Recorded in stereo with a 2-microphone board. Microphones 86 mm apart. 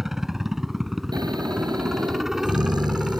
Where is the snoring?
55° right (ahead or behind).